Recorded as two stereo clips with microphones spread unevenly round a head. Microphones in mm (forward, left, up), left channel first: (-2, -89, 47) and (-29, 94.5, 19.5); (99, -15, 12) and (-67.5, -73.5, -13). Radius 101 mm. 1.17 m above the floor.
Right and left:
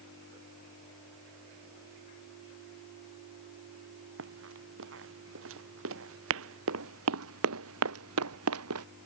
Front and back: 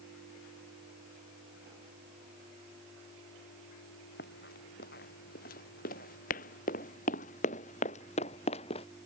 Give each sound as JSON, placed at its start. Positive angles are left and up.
{"t": 4.2, "sound": "running footsteps", "azimuth_deg": 70}